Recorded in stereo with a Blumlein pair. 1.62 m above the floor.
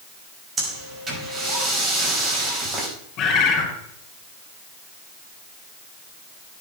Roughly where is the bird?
Ahead left.